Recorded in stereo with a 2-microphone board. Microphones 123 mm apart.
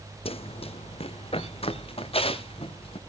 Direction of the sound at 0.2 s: 50° left (ahead or behind).